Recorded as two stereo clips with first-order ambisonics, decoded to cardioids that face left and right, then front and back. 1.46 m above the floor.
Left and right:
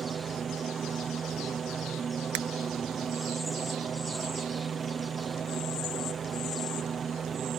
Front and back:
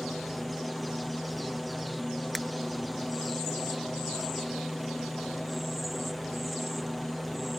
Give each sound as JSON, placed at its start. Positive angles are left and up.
{"t": 0.0, "sound": "a helicopter", "azimuth_deg": -80}
{"t": 2.4, "sound": "breaking glass", "azimuth_deg": -90}